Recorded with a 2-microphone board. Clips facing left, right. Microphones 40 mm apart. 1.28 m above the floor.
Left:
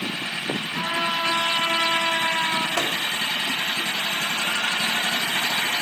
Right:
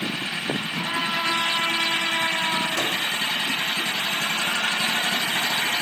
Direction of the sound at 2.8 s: 75° left (ahead or behind).